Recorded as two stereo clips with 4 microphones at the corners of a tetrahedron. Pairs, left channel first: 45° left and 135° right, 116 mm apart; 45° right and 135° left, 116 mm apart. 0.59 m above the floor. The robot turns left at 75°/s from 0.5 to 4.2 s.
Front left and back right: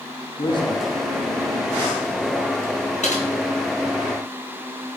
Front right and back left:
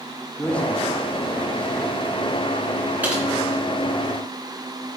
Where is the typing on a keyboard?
60° left, 3 m; by 3.2 s 45° left, 3 m.